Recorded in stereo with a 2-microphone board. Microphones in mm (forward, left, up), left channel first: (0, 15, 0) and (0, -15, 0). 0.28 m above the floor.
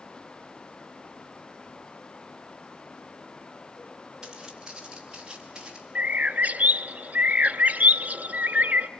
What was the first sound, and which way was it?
Footsteps, 25° right (ahead or behind).